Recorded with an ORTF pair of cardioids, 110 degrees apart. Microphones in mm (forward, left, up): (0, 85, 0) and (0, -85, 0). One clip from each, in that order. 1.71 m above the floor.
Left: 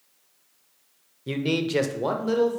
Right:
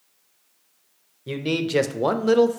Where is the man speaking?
5° left, 0.7 m; by 2.6 s 45° right, 0.8 m.